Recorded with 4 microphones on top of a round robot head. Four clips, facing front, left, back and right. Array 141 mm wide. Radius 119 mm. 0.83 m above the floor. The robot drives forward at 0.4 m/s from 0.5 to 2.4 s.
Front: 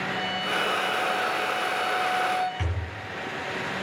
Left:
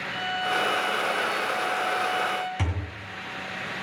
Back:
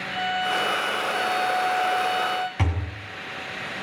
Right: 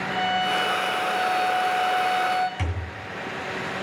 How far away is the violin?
About 2.5 m.